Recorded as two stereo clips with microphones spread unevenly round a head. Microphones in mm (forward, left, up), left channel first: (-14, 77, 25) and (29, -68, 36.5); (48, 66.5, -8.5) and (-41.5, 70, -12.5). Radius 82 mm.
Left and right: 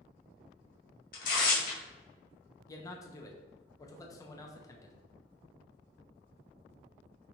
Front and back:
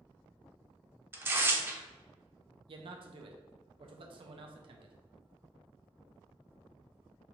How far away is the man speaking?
About 0.5 m.